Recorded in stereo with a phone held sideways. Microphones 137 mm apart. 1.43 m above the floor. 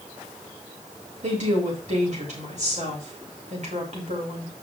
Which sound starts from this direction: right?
A woman speaking, at 1.2 s.